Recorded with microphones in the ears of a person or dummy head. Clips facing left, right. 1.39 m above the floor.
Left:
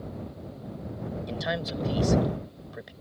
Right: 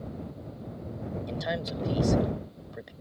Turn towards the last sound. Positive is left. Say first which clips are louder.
# left 1 dB
turn(degrees=5)  # may be behind; listen again after turning